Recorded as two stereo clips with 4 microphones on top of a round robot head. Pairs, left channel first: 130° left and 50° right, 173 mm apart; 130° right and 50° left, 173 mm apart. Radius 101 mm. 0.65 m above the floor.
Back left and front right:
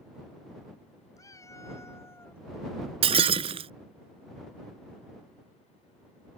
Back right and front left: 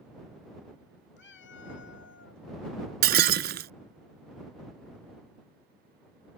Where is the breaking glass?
10° left.